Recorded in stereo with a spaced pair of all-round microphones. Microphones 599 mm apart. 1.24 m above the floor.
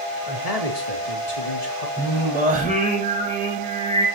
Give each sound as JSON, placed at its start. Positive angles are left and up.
{"t": 0.3, "sound": "a man speaking", "side_deg": 85, "distance_m": 3.0}
{"t": 2.0, "sound": "singing", "side_deg": -15, "distance_m": 6.0}